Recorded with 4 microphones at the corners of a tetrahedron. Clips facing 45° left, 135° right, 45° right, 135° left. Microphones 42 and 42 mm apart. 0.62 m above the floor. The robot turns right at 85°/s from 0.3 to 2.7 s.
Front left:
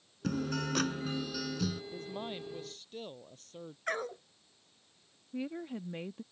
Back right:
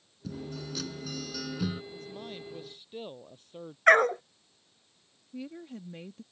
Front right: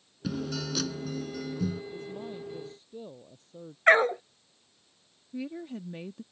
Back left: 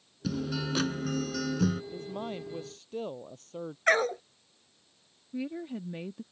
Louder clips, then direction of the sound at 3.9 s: Back right 16 dB, front right 5 dB; 110° right.